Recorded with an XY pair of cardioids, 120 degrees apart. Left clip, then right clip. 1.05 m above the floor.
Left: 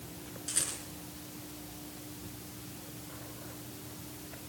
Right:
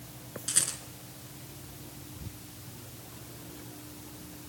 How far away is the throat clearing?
I don't hear throat clearing.